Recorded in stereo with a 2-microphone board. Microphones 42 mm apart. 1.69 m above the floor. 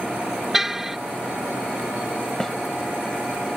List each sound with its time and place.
0.5 s a car horn: 10° right (ahead or behind)
2.4 s a snare drum: 10° left (ahead or behind)